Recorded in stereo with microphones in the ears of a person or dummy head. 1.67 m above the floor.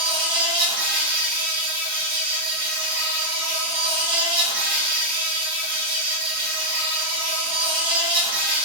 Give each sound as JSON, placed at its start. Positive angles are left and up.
{"t": 0.0, "sound": "an insect", "side_deg": -80, "distance_m": 1.8}